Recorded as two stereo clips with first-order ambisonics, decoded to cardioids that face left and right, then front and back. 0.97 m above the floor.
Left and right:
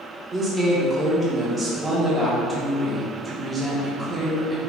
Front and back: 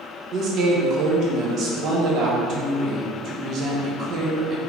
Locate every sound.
0.3 s a woman speaking: 155° right, 0.8 m